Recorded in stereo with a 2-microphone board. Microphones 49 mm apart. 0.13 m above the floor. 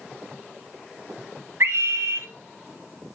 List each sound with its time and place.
1.6 s a scream: 55° right (ahead or behind), 3 m